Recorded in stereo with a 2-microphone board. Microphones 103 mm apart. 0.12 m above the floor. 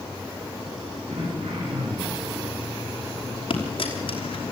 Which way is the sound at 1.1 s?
80° right.